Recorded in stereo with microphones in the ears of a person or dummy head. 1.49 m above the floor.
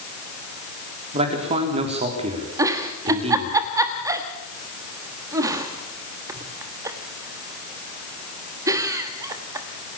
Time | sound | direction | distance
1.1 | a man speaking | 35° right (ahead or behind) | 4 m
2.6 | a giggle | 20° right (ahead or behind) | 1.2 m